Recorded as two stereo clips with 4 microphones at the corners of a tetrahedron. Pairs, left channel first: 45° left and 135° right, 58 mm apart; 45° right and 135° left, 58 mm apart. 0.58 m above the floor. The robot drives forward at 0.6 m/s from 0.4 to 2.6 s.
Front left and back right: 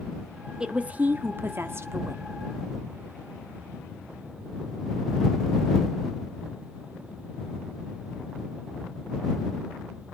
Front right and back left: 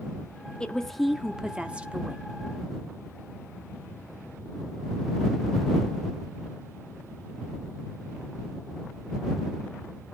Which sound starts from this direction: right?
A woman speaking, at 0.6 s.